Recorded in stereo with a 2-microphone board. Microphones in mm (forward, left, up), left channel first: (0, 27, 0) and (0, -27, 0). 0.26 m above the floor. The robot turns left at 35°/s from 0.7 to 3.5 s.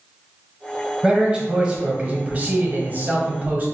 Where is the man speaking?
25° right, 1.1 m; by 3.6 s 110° right, 1.1 m.